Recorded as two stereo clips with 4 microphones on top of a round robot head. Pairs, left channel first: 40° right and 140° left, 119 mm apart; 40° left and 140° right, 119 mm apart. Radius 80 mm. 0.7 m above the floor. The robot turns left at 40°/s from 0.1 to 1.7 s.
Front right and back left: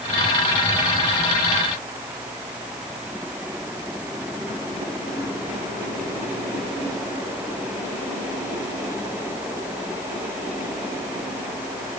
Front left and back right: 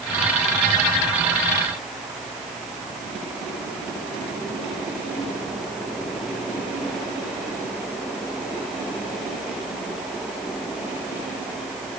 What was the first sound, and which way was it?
Only background noise.